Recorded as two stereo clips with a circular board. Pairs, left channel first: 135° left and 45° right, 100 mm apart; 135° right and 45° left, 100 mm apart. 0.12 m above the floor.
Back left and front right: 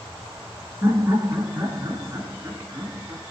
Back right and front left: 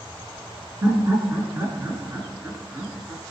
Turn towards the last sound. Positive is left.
turn(degrees=-5)